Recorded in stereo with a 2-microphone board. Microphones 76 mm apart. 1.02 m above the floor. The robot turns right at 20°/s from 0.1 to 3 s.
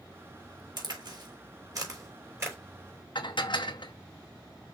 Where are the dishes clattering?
75° left (ahead or behind), 0.9 m.